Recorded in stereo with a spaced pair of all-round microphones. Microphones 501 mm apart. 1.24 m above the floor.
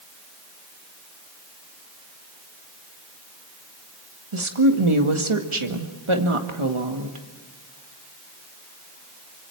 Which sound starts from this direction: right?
A woman speaking, at 4.3 s.